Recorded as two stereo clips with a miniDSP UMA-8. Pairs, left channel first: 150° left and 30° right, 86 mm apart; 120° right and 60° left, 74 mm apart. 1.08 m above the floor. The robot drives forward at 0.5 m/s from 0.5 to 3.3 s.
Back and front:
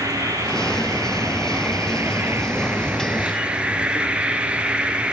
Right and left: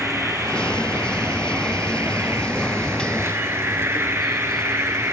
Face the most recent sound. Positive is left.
turn(degrees=40)